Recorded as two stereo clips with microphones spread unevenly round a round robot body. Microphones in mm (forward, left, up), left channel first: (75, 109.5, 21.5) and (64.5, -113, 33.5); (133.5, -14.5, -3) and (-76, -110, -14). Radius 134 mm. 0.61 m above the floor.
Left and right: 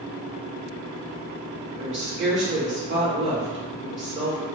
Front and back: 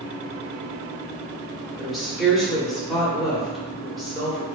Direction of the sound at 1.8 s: 65° right.